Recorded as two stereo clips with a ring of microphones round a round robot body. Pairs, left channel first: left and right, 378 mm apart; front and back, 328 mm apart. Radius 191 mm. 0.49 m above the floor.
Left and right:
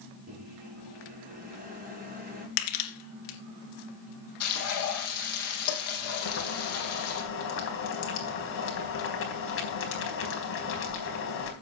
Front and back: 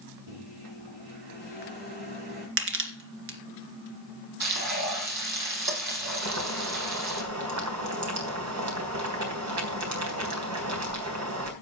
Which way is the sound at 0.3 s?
160° right.